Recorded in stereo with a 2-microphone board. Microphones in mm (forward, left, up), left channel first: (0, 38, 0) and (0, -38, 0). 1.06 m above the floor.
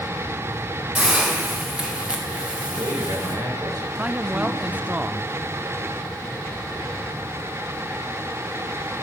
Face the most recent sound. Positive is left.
turn(degrees=-20)  # may be behind; listen again after turning